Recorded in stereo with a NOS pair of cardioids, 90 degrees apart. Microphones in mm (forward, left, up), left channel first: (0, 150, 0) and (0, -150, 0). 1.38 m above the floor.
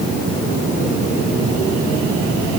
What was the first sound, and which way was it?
Only background noise.